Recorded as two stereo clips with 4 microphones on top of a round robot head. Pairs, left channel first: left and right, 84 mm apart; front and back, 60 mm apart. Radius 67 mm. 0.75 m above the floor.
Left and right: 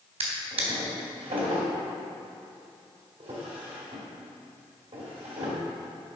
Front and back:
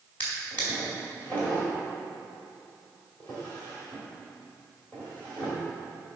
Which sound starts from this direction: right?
A drawer, at 0.2 s.